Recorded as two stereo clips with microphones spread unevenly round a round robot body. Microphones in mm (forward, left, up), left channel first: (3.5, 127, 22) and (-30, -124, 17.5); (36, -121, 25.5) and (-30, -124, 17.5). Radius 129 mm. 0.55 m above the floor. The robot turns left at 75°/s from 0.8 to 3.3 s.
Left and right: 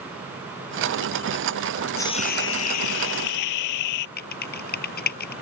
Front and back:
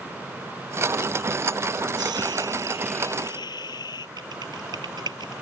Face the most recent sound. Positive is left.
turn(degrees=135)